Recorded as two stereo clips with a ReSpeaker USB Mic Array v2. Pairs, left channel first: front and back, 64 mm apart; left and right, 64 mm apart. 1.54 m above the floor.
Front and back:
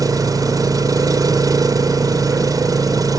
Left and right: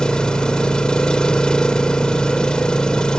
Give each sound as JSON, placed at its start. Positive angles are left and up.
{"t": 0.0, "sound": "an engine running", "azimuth_deg": 165}